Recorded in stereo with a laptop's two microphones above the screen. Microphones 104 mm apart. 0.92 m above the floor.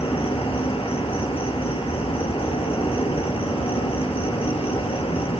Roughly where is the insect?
Left.